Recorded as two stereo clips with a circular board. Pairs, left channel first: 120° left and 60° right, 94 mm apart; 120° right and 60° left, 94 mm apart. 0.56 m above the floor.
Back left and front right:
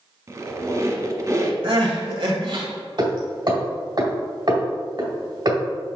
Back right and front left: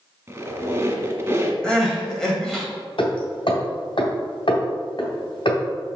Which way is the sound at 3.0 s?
95° right.